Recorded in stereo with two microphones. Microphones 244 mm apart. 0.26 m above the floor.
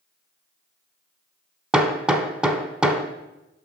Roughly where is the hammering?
Centre.